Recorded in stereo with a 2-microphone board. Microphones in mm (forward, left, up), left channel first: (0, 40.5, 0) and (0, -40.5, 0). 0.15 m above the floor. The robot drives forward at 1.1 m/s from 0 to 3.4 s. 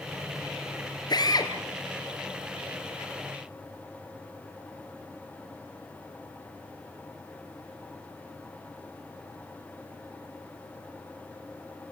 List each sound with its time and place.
1.1 s a drill: 55° left (ahead or behind), 3 m; by 1.5 s 50° left (ahead or behind), 3 m